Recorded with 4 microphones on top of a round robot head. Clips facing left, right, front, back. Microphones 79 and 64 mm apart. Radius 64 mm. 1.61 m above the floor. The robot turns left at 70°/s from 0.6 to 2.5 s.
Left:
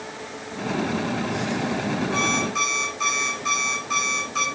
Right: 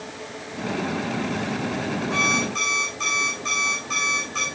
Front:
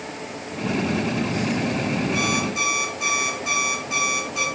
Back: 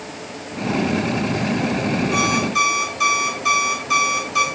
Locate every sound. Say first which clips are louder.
2.1 s an alarm clock: even, back 5 dB; 155° right, 8.5 m; by 4.5 s 175° left, 8.5 m